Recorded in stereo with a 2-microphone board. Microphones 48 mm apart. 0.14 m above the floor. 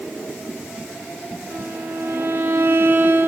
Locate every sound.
1.5 s a violin: 50° right (ahead or behind), 2.5 m